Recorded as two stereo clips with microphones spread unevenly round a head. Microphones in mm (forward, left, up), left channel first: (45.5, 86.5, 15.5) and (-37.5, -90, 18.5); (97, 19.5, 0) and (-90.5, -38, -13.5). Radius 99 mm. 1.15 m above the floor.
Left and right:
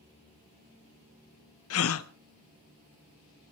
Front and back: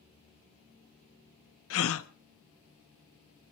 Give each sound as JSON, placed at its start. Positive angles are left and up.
{"t": 1.7, "sound": "a gasp", "azimuth_deg": 40, "distance_m": 1.0}